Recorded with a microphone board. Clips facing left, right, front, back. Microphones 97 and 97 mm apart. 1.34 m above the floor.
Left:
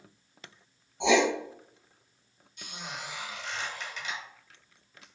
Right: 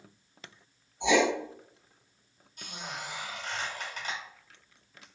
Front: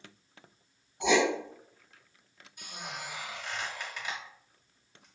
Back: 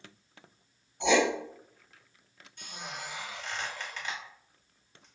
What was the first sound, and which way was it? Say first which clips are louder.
Writing: left 1 dB, back 1 dB; 85° left.